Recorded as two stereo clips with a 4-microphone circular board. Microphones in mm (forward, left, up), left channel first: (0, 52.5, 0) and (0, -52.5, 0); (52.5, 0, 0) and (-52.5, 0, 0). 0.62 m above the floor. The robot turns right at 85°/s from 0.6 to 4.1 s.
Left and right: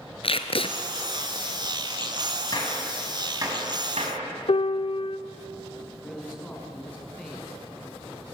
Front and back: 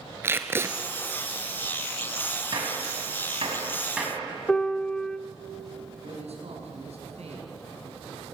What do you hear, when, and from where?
0.2 s tape being pulled: 115° left, 1.5 m; by 0.7 s 125° left, 1.5 m
2.5 s a gunshot: 135° left, 4.5 m; by 4.3 s 90° right, 4.5 m
4.5 s a piano: 80° left, 0.5 m
6.0 s a man speaking: 170° left, 5 m